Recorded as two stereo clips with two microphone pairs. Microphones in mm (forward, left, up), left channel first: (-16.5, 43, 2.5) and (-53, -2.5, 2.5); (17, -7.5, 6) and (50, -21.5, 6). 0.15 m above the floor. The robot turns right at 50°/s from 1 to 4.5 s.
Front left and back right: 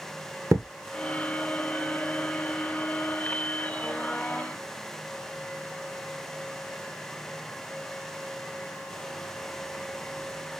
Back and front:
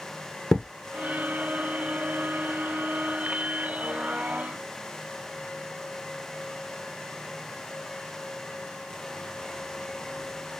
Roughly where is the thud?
Behind right.